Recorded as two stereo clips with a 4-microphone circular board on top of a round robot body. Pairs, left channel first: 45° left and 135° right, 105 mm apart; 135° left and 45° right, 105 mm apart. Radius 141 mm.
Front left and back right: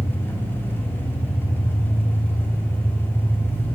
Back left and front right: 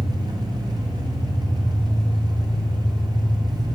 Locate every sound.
0.0 s an engine running: 20° right, 1.4 m